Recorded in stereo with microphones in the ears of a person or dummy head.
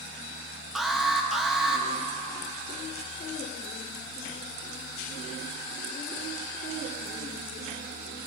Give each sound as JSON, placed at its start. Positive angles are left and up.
{"t": 0.8, "sound": "an alarm", "side_deg": 5, "distance_m": 1.4}